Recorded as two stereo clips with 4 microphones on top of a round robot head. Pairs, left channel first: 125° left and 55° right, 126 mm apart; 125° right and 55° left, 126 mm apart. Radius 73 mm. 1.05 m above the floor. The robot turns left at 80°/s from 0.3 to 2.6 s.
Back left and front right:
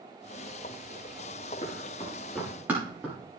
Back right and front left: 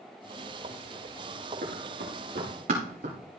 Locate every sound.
1.6 s running footsteps: 85° left, 6 m; by 3.1 s 25° left, 6 m